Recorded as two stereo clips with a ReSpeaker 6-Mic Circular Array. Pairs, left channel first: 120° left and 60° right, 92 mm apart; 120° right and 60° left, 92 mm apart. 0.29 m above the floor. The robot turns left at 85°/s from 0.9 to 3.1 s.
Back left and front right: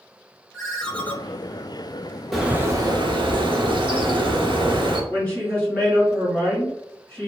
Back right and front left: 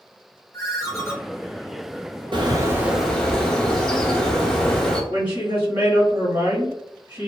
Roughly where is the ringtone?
Behind.